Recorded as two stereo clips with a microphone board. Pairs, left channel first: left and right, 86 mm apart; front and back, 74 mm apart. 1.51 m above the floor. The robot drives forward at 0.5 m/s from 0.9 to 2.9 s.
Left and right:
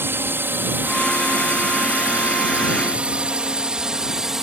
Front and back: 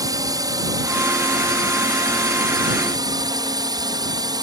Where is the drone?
150° right; by 4.4 s 175° right.